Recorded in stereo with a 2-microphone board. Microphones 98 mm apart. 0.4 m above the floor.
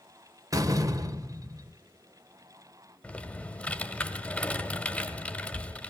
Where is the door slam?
35° right (ahead or behind), 1.1 m.